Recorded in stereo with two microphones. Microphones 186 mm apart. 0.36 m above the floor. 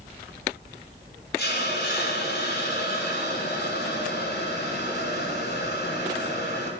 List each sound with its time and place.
1.4 s a hiss: 65° left (ahead or behind), 3 m